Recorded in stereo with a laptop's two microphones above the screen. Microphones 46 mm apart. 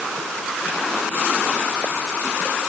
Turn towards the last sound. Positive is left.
No sound to turn to.